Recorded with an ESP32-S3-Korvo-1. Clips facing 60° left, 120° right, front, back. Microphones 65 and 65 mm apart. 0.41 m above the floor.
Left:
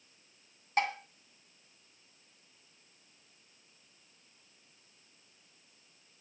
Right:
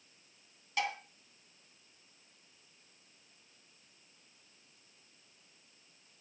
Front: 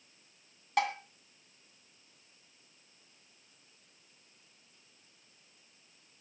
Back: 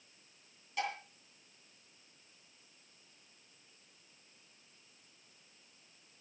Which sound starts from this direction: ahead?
Dishes clattering, at 0.8 s.